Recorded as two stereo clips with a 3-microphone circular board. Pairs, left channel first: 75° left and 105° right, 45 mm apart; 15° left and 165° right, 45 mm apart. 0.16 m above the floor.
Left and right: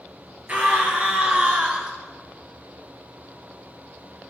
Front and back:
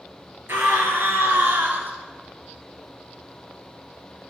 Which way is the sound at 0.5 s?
155° right.